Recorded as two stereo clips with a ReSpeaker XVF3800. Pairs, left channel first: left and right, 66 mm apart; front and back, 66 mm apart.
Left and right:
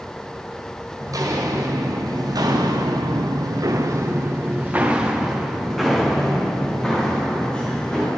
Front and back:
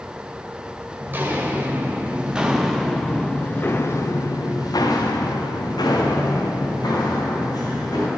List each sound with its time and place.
1.0 s footsteps: 120° right, 1.6 m; by 8.1 s 15° left, 2.5 m